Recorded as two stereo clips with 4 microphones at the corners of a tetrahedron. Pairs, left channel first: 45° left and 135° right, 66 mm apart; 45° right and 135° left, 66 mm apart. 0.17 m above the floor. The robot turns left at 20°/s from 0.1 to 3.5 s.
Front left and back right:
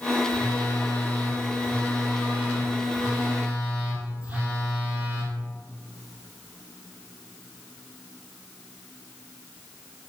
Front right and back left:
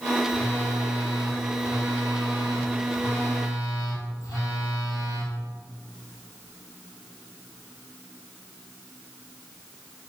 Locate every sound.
0.3 s a phone buzzing: 10° right, 1.1 m; by 5.3 s 75° right, 1.1 m